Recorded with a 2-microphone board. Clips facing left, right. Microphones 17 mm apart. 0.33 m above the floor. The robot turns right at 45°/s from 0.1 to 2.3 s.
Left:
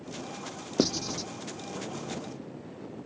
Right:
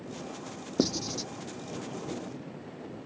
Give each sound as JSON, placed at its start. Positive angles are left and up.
{"t": 0.8, "sound": "writing", "side_deg": 10}